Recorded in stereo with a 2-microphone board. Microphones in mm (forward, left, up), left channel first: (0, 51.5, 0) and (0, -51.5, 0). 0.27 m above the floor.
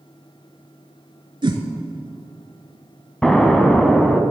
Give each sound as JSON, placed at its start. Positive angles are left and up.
{"t": 1.4, "sound": "a whoosh", "side_deg": -50, "distance_m": 0.9}
{"t": 3.2, "sound": "an explosion", "side_deg": 5, "distance_m": 0.8}